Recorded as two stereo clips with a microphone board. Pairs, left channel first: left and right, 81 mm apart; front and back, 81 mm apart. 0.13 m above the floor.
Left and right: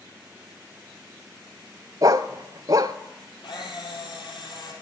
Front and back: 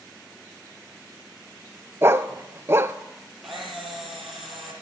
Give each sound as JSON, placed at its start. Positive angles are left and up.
{"t": 2.0, "sound": "a dog barking", "azimuth_deg": -125, "distance_m": 0.5}
{"t": 3.4, "sound": "a camera shutter", "azimuth_deg": 90, "distance_m": 3.5}